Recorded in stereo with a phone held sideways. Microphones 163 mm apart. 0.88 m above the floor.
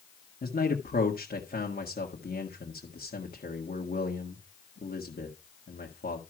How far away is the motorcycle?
I don't hear a motorcycle.